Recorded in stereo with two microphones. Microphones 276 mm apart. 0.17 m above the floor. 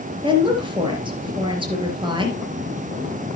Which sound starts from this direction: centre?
A woman speaking, at 0.2 s.